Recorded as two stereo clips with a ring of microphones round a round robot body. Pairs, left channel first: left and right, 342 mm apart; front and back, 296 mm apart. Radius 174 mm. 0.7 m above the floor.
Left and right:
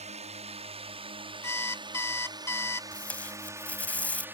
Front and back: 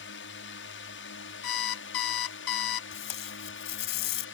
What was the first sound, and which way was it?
A drone, 25° right.